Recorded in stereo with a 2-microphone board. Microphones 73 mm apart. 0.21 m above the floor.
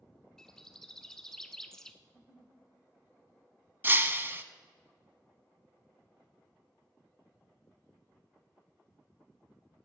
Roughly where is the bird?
Centre.